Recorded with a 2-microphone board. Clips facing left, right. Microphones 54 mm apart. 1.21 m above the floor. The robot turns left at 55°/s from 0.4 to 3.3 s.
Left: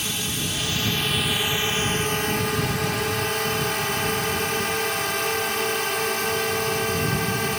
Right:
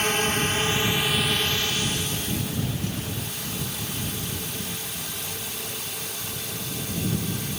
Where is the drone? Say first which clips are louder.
Right 6 dB; 135° right; by 7.6 s 65° left.